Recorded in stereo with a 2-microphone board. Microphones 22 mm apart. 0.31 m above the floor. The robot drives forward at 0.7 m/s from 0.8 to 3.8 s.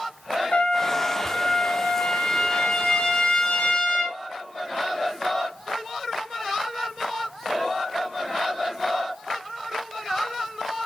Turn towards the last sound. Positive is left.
turn(degrees=40)  # may be behind; listen again after turning